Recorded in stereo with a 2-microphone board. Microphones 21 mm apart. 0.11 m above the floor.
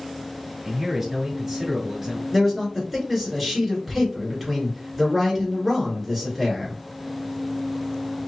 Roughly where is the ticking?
I don't hear ticking.